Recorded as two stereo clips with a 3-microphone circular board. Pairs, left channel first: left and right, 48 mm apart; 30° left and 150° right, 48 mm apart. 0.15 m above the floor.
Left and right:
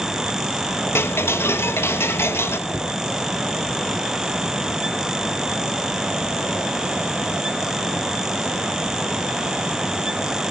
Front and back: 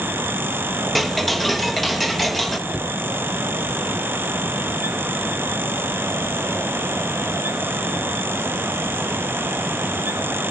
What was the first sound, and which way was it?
Ticking, 120° left.